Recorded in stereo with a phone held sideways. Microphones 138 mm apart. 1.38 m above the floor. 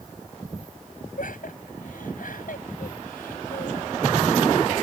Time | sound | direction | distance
1.2 | laughter | 75° left (ahead or behind) | ?